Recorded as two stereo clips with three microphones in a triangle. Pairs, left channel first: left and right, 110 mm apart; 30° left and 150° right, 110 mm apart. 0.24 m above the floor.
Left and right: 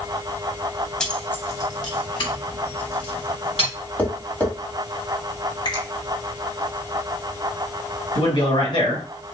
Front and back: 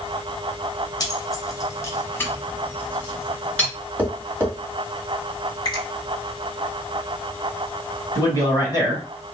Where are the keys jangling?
10° left, 0.8 m; by 3.7 s 110° left, 1.9 m.